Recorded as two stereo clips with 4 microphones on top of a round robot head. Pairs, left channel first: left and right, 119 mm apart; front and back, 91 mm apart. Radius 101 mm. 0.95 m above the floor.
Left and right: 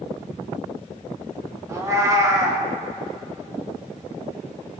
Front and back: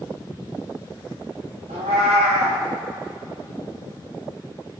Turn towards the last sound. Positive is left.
turn(degrees=-155)